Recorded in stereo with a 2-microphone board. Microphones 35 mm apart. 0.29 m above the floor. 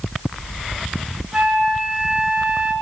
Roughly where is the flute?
Centre.